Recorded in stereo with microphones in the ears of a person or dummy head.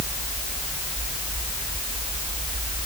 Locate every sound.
Only background noise.